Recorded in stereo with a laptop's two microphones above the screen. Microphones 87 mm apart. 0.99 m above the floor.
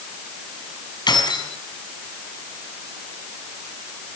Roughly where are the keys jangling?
Left.